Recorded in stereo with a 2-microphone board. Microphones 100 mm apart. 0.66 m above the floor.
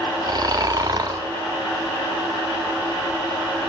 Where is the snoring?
45° right (ahead or behind), 0.5 m.